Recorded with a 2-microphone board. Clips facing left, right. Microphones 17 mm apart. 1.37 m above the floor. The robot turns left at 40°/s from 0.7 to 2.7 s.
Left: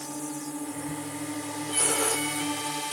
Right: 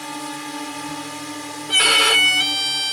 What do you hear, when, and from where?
0.0 s a drone: 125° right; by 2.9 s 155° left
1.7 s a violin: 70° right; by 2.9 s 110° right